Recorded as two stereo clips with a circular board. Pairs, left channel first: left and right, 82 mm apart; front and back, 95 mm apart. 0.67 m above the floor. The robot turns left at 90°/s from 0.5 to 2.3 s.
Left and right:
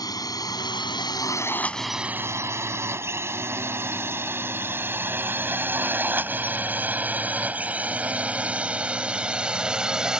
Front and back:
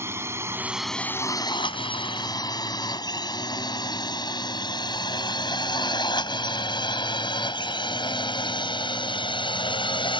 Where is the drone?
120° left; by 10.2 s 10° right.